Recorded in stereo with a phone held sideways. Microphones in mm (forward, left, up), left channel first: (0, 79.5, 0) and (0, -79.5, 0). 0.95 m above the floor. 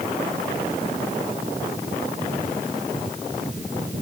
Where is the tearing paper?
No tearing paper in this recording.